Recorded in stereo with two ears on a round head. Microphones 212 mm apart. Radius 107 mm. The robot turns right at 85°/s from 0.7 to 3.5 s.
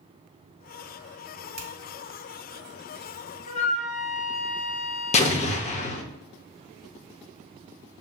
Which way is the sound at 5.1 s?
30° left (ahead or behind).